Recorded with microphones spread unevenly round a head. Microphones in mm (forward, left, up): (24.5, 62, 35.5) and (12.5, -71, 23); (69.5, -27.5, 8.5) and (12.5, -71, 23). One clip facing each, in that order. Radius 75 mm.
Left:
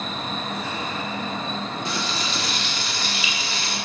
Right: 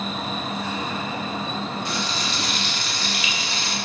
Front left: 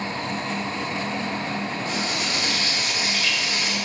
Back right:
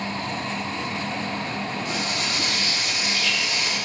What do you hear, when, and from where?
1.9 s frying: 110° left, 1.2 m